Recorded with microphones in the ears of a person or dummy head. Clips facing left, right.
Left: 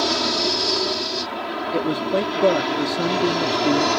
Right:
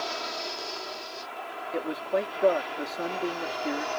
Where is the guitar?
I don't hear a guitar.